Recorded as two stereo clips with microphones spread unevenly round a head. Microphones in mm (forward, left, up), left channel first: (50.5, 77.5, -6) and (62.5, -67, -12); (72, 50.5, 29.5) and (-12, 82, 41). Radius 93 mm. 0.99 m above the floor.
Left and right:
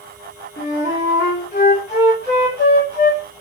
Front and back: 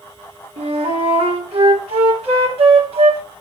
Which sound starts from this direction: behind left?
A flute, at 0.6 s.